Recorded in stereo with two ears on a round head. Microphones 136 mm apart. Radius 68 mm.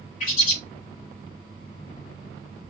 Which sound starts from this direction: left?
A bird, at 0.2 s.